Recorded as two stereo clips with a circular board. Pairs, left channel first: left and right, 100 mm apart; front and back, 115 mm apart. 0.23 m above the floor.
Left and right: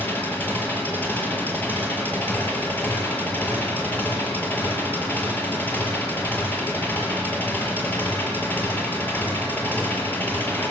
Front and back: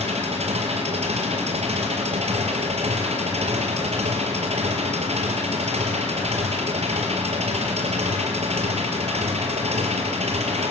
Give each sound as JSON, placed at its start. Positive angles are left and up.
{"t": 0.0, "sound": "an engine running", "azimuth_deg": 160, "distance_m": 4.5}